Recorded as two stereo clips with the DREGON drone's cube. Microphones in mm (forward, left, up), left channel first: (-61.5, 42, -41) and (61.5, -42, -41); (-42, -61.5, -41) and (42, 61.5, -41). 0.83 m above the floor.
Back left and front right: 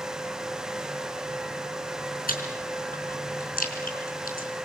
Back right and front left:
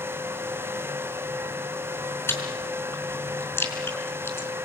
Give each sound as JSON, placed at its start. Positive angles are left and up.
{"t": 2.3, "sound": "chewing", "azimuth_deg": 160, "distance_m": 4.5}